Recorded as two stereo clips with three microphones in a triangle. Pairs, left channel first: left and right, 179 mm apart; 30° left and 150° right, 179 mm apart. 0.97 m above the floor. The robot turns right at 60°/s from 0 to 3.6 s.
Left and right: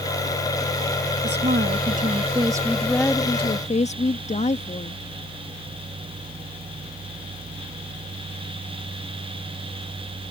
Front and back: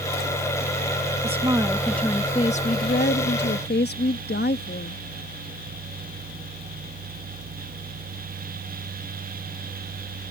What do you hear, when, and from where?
1.2 s a woman speaking: 100° right; by 5.0 s 45° left